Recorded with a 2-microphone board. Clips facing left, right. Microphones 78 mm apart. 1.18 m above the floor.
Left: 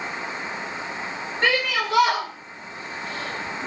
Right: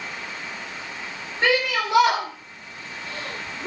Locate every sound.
1.4 s a shout: 10° right (ahead or behind), 3 m; by 3.7 s 30° right (ahead or behind), 3.5 m